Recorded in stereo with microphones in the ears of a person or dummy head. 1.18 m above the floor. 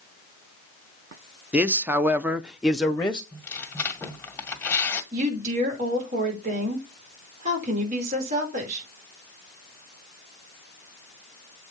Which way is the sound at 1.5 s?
5° right (ahead or behind).